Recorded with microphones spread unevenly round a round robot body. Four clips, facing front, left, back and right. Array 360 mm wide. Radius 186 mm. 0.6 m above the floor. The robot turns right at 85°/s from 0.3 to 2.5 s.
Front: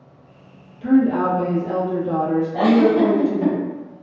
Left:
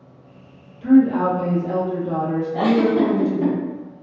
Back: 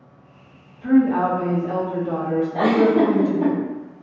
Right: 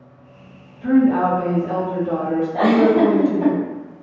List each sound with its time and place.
0.8 s a woman speaking: 10° left, 0.8 m; by 3.5 s 150° left, 0.8 m
2.5 s a giggle: 135° left, 1.4 m